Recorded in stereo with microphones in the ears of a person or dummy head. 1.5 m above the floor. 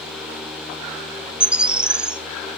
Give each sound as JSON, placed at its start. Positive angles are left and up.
{"t": 1.4, "sound": "a bird", "side_deg": -10, "distance_m": 0.8}